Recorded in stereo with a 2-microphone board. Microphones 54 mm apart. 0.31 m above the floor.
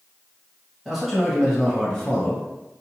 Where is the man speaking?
5° right (ahead or behind), 1.6 m; by 2.4 s 20° left (ahead or behind), 1.5 m.